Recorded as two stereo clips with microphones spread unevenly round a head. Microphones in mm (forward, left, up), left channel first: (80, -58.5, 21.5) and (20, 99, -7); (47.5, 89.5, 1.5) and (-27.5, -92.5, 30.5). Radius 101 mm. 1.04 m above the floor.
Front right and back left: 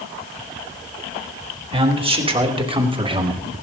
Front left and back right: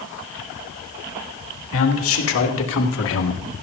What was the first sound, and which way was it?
A man speaking, 55° left.